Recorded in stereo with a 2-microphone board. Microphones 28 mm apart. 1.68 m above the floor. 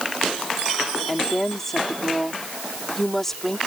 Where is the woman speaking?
10° left (ahead or behind).